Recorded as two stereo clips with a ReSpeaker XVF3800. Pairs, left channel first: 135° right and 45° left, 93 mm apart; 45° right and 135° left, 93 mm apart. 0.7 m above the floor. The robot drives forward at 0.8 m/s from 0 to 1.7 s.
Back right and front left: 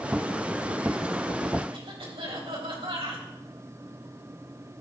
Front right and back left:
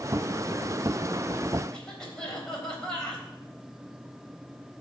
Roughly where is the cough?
Ahead left.